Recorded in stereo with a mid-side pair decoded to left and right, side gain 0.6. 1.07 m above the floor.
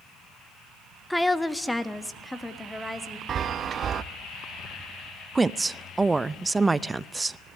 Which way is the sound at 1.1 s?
5° left.